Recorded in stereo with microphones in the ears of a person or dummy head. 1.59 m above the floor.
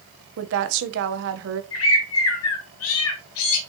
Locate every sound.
0.4 s a woman speaking: 70° right (ahead or behind), 1.1 m
1.7 s a bird: 85° left, 1.5 m